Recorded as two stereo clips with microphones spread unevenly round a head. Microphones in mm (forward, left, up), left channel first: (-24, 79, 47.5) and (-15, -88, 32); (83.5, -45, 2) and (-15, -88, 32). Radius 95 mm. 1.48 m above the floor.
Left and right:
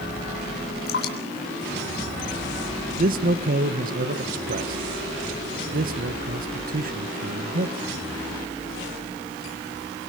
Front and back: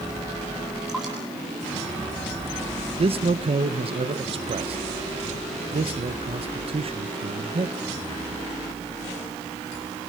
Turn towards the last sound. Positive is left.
turn(degrees=-125)